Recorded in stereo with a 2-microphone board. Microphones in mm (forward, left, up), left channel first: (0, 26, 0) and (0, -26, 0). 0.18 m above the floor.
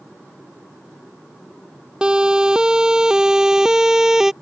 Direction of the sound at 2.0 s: 15° right (ahead or behind).